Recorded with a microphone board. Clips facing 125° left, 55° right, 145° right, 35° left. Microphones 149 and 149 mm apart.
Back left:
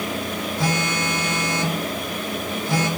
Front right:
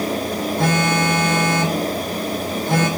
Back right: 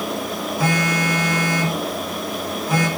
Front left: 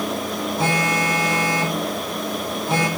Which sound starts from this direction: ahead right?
A phone buzzing, at 0.6 s.